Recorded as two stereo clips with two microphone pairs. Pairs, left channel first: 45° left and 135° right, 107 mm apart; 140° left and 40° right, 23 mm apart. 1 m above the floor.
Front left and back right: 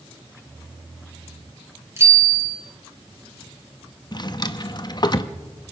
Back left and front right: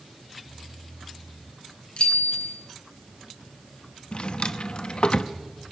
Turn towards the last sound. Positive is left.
turn(degrees=95)